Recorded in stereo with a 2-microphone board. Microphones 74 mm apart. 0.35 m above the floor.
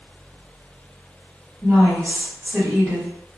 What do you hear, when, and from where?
1.6 s a woman speaking: 20° right (ahead or behind), 1.8 m